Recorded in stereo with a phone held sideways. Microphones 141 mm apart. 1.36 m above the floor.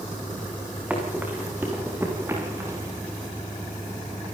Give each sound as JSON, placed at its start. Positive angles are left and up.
{"t": 0.9, "sound": "running footsteps", "side_deg": -10, "distance_m": 8.0}